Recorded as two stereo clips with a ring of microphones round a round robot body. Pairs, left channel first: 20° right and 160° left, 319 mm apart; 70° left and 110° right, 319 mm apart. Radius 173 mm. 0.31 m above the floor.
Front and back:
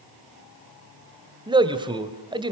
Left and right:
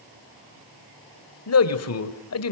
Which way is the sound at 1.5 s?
85° left.